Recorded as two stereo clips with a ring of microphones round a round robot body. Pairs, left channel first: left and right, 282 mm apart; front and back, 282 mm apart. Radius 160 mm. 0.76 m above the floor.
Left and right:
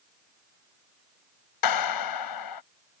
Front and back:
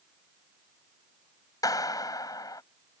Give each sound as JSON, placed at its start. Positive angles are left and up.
{"t": 1.6, "sound": "a clap", "azimuth_deg": 80}